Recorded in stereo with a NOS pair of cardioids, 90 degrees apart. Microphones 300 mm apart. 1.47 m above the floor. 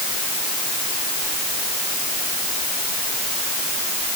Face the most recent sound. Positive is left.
No sound to turn to.